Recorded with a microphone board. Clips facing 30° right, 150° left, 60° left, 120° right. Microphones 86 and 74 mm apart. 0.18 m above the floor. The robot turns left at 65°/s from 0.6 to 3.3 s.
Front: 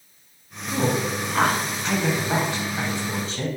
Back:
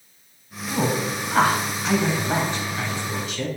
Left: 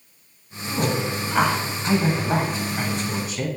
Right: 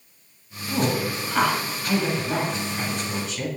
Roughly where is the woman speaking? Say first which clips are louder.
Even, even; behind.